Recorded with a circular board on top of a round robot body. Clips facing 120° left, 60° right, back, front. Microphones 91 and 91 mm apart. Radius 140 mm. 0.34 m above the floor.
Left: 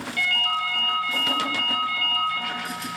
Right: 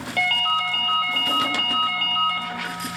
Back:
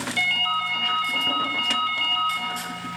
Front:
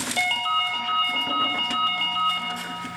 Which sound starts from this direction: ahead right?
A ringtone, at 0.2 s.